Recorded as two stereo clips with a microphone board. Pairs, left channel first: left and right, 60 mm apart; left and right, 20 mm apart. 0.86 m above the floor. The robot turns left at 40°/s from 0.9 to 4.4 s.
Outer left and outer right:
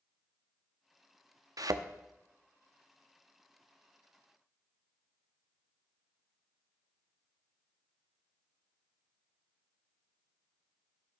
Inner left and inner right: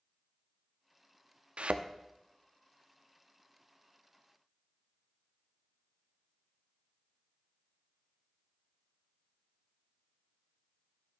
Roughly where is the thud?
Right.